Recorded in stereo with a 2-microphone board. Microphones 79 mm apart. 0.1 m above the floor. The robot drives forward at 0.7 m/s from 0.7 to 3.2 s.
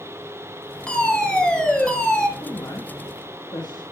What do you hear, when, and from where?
0.9 s a fire alarm: 10° left (ahead or behind), 3 m
2.4 s a woman speaking: 50° left (ahead or behind), 5 m; by 3.8 s 55° left (ahead or behind), 4.5 m